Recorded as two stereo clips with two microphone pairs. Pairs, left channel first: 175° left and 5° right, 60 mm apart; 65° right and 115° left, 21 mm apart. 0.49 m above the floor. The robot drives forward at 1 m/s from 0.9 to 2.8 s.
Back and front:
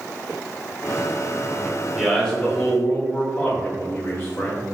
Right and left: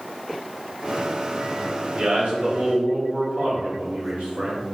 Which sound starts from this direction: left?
A man speaking, at 1.9 s.